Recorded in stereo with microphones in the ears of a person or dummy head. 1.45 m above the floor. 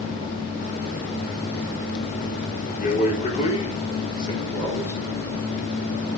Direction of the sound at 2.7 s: 50° left (ahead or behind).